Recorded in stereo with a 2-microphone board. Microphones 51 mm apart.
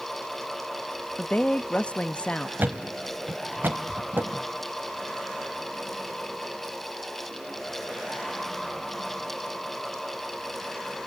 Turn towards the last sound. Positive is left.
turn(degrees=-45)  # may be behind; listen again after turning